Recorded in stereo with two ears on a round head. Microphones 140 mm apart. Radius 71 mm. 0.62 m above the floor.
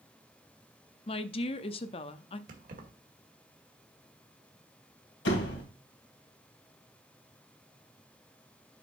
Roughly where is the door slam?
Left.